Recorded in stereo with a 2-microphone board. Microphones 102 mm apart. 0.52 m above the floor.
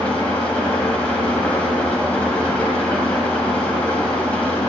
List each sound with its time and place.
0.0 s an engine running: 15° left (ahead or behind), 1.9 m